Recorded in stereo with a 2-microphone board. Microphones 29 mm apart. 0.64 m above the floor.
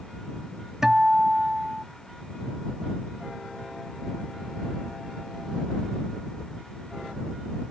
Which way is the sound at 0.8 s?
15° right (ahead or behind).